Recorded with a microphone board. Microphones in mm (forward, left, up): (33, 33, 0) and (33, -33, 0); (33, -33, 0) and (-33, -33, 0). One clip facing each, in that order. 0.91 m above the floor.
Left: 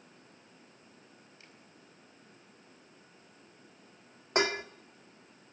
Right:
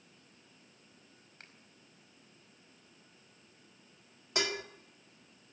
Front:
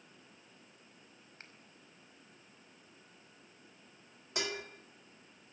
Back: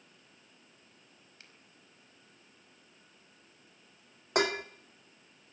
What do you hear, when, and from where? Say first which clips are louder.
1.4 s a finger snap: right 5 dB, front 4 dB; 55° right, 4.5 m
4.3 s dishes clattering: left 6 dB, back 10 dB; 145° left, 1.1 m